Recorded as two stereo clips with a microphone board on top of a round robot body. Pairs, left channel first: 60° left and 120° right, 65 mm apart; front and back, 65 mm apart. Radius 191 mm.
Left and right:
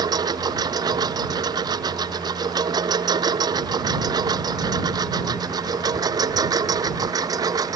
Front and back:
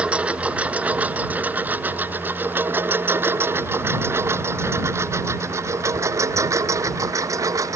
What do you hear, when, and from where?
0.0 s a lawn mower: 105° right; by 7.8 s 145° right